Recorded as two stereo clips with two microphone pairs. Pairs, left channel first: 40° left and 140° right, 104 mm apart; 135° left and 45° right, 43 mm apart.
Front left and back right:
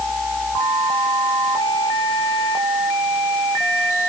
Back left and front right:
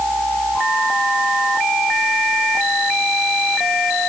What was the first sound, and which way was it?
Only background noise.